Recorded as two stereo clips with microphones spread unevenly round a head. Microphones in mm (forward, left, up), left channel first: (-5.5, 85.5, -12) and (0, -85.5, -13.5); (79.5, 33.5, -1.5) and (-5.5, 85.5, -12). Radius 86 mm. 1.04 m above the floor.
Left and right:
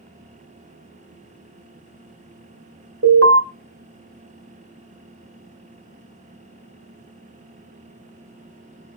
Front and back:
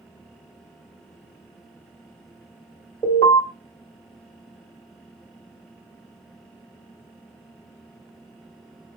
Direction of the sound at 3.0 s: 100° right.